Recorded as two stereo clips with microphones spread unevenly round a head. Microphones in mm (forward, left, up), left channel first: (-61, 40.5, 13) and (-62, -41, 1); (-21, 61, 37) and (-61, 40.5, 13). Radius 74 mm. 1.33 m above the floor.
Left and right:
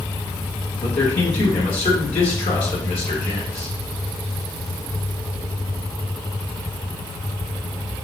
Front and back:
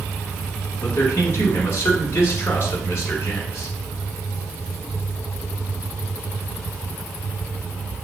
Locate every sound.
0.8 s a man speaking: 60° left, 1.7 m